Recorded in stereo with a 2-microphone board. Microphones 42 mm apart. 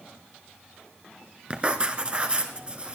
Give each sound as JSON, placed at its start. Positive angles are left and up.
{"t": 1.5, "sound": "writing", "side_deg": -30, "distance_m": 1.4}